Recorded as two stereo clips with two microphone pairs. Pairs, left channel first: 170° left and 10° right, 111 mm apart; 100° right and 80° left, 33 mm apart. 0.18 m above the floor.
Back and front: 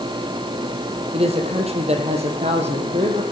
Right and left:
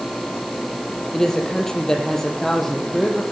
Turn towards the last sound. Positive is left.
turn(degrees=-15)